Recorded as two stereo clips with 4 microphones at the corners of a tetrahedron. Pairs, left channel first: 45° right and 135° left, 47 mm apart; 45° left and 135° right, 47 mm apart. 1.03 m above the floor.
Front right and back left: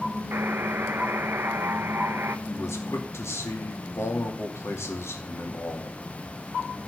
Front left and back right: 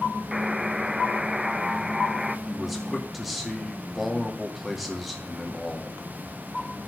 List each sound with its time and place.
0.3 s a buzzer: 155° left, 0.7 m
2.5 s a man speaking: 45° right, 2 m